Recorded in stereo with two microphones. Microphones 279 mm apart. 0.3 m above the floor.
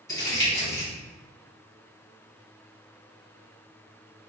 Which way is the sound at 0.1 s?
10° left (ahead or behind).